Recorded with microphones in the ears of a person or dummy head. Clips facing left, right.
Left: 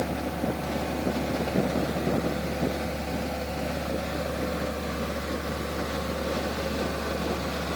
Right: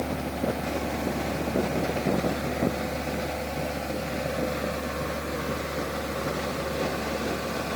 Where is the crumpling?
No crumpling in this recording.